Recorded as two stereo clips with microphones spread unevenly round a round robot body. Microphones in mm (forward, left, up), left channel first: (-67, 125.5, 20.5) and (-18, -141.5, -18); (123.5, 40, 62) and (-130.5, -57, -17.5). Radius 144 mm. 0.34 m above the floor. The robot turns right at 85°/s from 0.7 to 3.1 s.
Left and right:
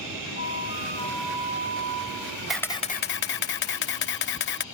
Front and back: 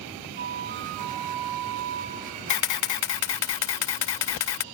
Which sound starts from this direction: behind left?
A flute, at 0.4 s.